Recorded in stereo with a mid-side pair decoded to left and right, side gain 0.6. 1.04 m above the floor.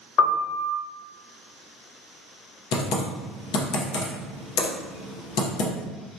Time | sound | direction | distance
0.2 | a piano | 40° left | 0.6 m
2.7 | typing on a keyboard | 70° left | 0.8 m